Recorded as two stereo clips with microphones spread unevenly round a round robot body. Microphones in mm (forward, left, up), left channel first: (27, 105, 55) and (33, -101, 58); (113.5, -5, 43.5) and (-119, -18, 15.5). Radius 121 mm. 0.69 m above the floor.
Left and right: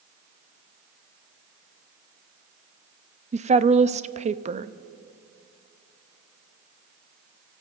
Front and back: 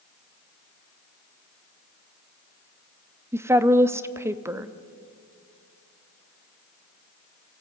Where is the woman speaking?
115° right, 0.9 m.